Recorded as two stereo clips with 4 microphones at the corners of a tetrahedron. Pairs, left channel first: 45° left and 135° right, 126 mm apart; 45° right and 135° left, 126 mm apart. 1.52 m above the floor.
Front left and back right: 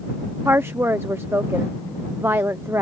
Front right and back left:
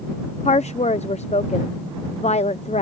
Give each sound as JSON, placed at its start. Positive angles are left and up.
{"t": 0.5, "sound": "a woman speaking", "azimuth_deg": -65}